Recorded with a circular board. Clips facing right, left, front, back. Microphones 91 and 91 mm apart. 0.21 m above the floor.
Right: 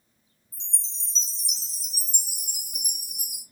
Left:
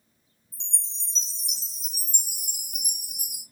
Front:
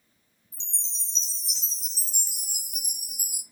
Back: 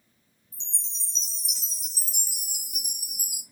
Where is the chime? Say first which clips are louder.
Left 1 dB, front 1 dB; 100° left, 1.4 m.